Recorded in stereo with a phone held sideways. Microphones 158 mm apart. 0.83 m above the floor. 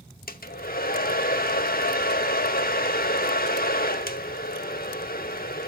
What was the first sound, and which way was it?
A hair dryer, 70° left (ahead or behind).